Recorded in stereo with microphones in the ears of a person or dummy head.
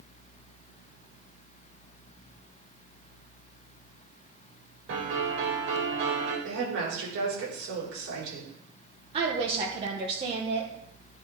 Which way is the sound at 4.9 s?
65° right (ahead or behind).